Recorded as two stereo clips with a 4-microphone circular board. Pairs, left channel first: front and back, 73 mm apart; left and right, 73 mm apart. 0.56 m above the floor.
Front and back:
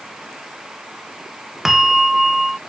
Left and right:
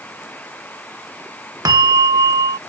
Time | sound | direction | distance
1.6 | a bell | 95° right | ?